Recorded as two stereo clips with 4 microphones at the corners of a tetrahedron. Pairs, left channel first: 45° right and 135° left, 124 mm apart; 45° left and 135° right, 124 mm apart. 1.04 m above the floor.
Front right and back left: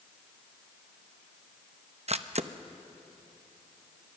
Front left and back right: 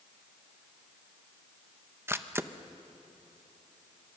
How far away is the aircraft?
No aircraft in this recording.